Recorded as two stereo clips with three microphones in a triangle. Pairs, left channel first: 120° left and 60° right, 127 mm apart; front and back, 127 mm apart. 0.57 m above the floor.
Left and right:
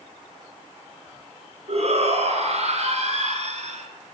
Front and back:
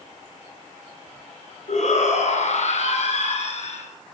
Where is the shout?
25° right, 8 m; by 3.9 s 30° right, 9 m.